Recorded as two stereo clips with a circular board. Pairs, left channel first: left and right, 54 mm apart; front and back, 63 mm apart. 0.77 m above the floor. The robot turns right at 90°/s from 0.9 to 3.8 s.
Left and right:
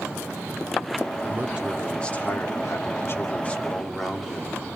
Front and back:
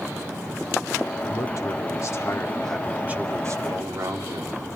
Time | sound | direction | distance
1.2 | a man speaking | 50° right | 2.5 m